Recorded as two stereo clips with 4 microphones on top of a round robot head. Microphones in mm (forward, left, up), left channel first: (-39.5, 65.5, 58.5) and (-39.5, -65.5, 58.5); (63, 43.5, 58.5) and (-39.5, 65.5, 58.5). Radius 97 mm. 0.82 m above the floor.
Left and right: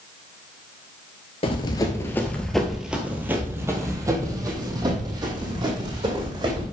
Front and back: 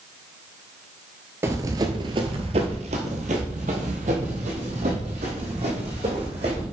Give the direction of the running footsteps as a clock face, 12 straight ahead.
8 o'clock.